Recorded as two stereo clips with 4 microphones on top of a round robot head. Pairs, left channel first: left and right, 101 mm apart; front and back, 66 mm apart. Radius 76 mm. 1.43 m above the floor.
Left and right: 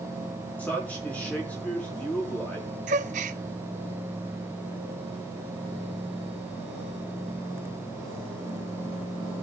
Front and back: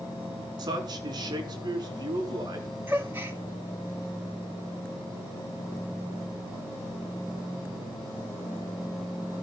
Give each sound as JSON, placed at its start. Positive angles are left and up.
{"t": 0.6, "sound": "a man speaking", "azimuth_deg": 170, "distance_m": 4.0}
{"t": 2.9, "sound": "a gasp", "azimuth_deg": -105, "distance_m": 0.6}